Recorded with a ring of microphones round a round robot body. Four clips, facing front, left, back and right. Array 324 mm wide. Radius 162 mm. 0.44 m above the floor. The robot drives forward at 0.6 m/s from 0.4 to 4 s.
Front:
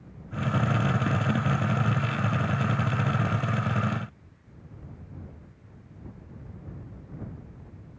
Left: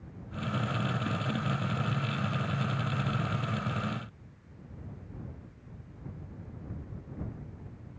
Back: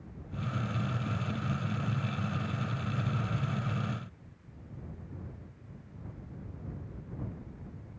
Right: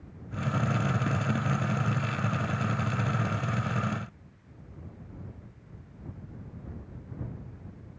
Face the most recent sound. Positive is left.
No sound to turn to.